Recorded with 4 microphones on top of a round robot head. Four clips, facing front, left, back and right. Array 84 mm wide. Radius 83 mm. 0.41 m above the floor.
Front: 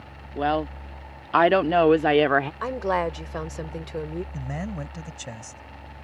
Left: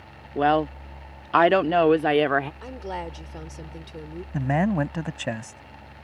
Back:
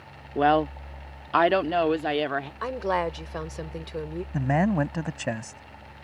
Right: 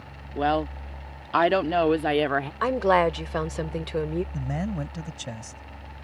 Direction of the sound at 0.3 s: 135° left.